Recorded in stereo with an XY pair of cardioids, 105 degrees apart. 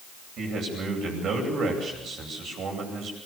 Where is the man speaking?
65° right, 9.5 m.